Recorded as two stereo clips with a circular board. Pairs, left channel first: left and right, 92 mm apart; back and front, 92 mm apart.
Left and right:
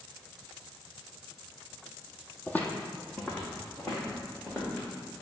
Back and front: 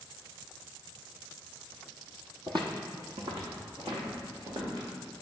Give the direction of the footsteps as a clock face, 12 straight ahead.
11 o'clock.